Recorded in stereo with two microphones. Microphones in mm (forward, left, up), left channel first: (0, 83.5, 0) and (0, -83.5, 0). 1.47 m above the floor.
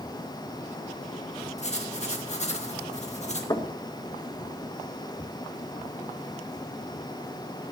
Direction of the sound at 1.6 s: 45° left (ahead or behind).